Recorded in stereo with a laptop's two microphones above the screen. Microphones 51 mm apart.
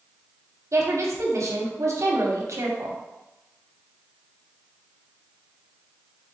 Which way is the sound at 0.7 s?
65° right (ahead or behind).